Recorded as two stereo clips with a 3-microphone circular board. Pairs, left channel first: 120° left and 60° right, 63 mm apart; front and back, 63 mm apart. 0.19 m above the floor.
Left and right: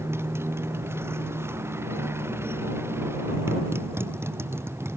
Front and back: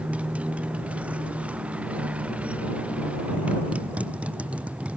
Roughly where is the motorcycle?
Right.